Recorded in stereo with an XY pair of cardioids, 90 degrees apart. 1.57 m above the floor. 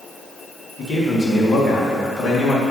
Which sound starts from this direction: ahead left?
A man speaking, at 0.8 s.